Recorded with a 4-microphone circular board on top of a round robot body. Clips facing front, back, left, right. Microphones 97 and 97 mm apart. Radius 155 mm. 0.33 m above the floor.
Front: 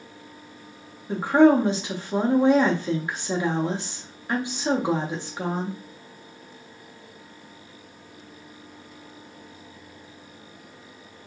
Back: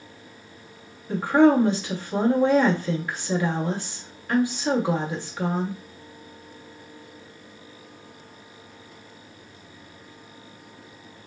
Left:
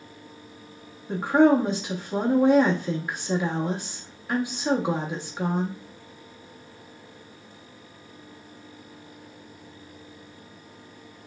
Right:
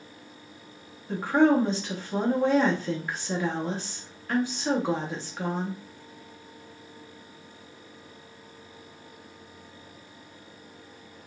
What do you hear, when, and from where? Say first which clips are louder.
1.1 s a woman speaking: front 1 dB, left 3 dB; 30° left, 1.1 m